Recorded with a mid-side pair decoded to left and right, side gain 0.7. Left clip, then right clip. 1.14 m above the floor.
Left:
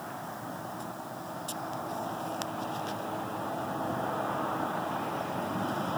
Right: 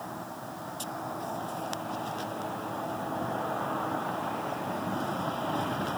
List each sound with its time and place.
Only background noise.